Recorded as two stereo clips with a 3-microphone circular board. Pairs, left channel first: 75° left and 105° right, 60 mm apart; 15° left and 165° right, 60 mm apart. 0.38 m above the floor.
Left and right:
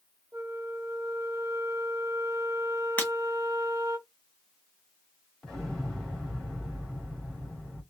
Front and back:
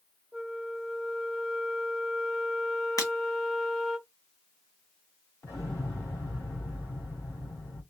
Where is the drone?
I don't hear a drone.